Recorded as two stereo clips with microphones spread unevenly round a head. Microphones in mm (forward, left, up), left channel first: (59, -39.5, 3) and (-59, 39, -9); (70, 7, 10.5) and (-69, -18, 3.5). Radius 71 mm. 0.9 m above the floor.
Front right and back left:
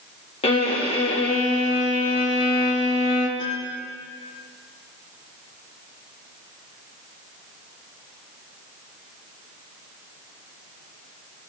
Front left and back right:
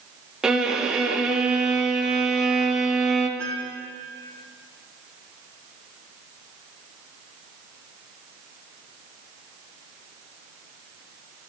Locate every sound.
0.4 s a violin: 85° right, 2.0 m
3.4 s a piano: 65° right, 9 m